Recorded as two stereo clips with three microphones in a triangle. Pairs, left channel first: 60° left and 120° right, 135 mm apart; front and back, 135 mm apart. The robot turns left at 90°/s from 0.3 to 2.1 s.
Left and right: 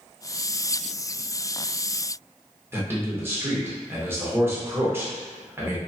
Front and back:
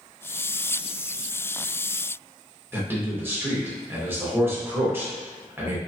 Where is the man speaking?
150° right, 0.8 m.